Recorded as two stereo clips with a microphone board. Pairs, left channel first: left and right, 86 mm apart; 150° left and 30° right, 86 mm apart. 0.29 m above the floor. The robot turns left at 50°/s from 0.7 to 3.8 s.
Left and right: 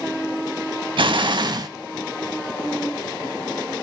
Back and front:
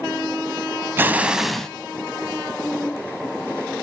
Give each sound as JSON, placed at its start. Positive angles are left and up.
{"t": 1.0, "sound": "an explosion", "azimuth_deg": -95, "distance_m": 0.6}